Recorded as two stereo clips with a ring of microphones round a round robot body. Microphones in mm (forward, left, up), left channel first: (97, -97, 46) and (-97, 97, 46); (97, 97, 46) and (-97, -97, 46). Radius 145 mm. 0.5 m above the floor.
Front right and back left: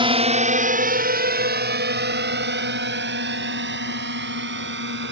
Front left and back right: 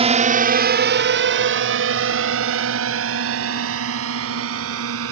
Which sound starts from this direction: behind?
A drone, at 0.0 s.